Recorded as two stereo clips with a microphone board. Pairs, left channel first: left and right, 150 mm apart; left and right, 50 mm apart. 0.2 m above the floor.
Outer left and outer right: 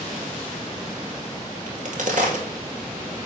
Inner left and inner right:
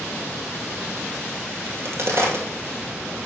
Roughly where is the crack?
Right.